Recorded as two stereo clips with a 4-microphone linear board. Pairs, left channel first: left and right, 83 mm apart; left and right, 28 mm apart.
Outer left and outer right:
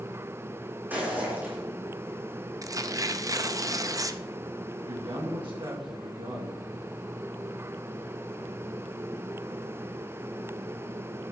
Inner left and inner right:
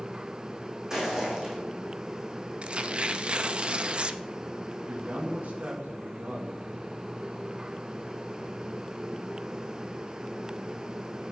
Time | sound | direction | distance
0.9 | footsteps | 20° right (ahead or behind) | 3.5 m
2.6 | tearing paper | 40° right (ahead or behind) | 0.5 m
4.8 | a man speaking | 70° right (ahead or behind) | 2 m